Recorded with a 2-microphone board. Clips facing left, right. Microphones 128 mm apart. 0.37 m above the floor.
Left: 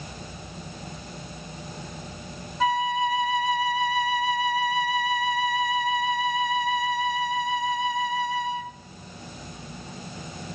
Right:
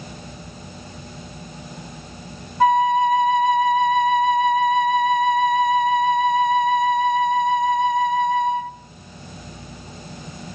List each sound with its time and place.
2.6 s a flute: 50° right (ahead or behind), 0.7 m